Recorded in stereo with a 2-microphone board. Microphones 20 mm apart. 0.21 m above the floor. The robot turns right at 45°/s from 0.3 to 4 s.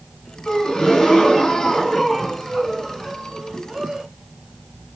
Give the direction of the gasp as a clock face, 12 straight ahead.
9 o'clock.